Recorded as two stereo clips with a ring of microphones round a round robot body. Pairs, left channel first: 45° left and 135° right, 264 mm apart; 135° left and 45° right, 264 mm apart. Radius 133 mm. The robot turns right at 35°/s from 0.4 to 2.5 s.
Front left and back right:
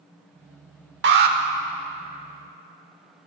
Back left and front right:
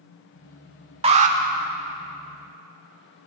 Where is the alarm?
105° right, 1.0 m; by 1.4 s 95° right, 1.0 m.